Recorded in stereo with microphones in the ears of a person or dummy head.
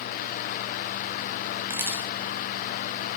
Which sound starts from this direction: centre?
A camera shutter, at 1.7 s.